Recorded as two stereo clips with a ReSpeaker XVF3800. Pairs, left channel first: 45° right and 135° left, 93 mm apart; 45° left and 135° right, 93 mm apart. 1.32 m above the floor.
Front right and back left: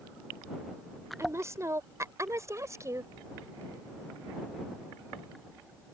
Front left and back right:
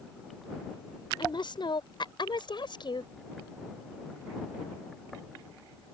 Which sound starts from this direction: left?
A woman speaking, at 1.2 s.